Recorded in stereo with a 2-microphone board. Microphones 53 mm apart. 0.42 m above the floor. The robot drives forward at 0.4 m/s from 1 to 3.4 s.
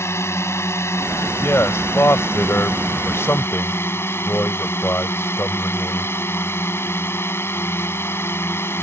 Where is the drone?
60° left (ahead or behind); by 8.8 s 50° left (ahead or behind).